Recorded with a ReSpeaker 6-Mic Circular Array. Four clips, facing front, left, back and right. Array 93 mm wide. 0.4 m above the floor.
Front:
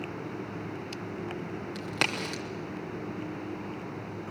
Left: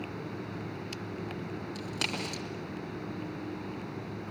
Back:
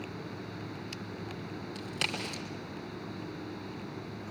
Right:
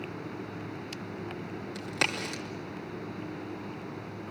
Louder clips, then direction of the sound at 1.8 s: Right 6 dB, front 6 dB; 15° right.